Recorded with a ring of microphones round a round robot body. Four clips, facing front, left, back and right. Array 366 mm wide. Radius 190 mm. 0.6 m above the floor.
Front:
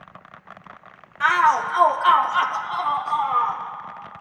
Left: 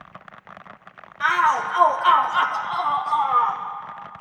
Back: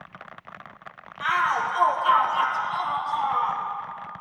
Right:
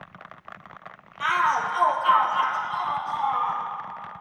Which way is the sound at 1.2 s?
15° left.